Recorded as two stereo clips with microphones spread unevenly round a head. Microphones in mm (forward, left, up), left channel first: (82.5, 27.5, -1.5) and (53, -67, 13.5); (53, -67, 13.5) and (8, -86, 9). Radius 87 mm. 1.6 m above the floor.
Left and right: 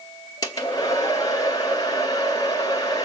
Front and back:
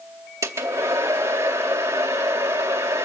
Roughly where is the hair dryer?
Behind left.